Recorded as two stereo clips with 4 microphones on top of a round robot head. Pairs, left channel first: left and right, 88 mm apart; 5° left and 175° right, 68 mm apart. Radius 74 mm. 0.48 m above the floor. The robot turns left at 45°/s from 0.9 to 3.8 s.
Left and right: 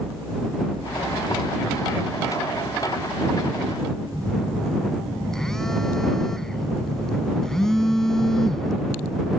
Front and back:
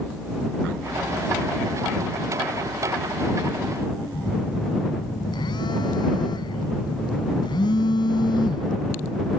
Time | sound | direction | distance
4.1 | a phone buzzing | 5° left | ?